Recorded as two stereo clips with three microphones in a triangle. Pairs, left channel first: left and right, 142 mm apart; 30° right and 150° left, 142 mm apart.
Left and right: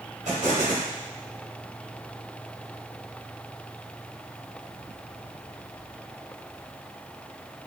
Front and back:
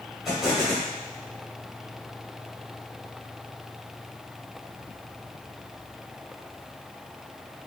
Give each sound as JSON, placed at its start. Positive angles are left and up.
{"t": 0.2, "sound": "an explosion", "azimuth_deg": -120, "distance_m": 2.5}